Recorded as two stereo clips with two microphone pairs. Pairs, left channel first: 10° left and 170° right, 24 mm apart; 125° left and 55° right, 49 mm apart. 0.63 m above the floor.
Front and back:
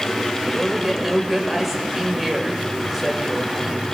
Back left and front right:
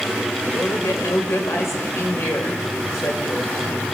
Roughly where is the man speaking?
Left.